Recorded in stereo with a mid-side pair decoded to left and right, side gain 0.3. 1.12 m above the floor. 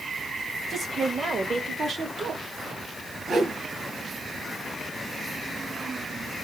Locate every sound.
0.7 s a woman speaking: 55° right, 1.8 m; by 2.5 s 75° right, 1.1 m
3.3 s a whoosh: 65° right, 3.5 m